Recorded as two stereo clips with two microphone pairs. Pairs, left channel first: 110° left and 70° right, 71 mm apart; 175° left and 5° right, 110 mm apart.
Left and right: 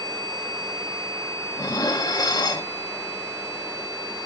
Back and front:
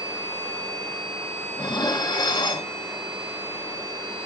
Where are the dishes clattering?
125° left, 1.6 m.